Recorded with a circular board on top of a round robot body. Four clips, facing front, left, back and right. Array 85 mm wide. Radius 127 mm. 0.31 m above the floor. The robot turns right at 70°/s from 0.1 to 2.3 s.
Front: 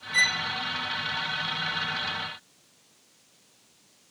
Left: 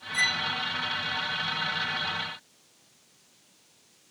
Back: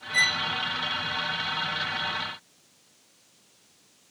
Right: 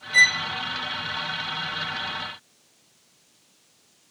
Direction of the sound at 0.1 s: 90° right.